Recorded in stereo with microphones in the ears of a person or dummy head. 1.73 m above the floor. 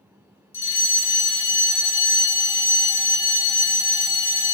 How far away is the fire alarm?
About 1.6 m.